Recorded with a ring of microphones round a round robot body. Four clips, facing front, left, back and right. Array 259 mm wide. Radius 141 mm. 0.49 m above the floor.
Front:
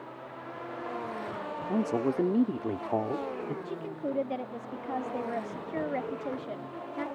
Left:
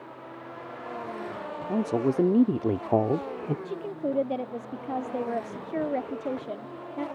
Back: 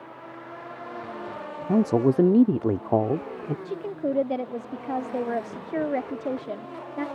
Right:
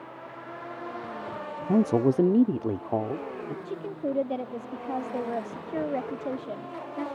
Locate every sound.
1.7 s a man speaking: 145° right; by 3.5 s 130° left
3.6 s a woman speaking: 175° left